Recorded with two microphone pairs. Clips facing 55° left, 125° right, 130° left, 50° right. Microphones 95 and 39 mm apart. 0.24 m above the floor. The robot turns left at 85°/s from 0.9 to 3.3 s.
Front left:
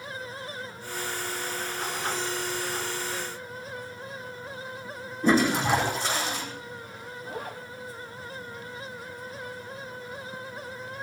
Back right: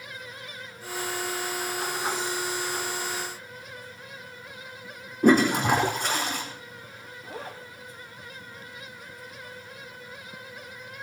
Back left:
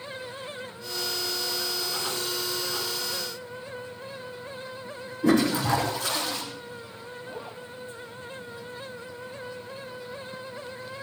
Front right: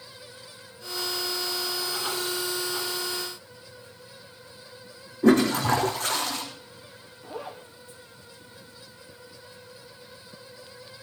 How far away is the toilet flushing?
About 4.5 m.